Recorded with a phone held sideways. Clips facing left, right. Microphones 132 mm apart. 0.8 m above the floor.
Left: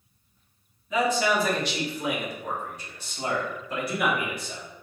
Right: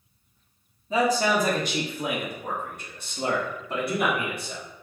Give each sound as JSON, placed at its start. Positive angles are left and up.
{"t": 0.9, "sound": "a man speaking", "side_deg": -30, "distance_m": 1.0}